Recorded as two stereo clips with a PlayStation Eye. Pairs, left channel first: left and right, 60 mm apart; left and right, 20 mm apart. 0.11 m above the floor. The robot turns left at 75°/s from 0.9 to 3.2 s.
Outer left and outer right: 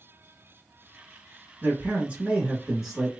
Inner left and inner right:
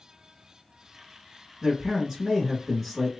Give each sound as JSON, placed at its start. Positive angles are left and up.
{"t": 1.6, "sound": "a man speaking", "side_deg": -25, "distance_m": 1.1}